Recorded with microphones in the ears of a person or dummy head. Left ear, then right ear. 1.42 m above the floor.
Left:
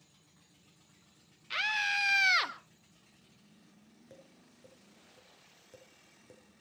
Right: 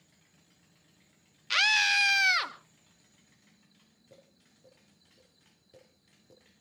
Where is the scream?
50° right (ahead or behind), 1.3 m; by 2.5 s 5° left (ahead or behind), 1.2 m.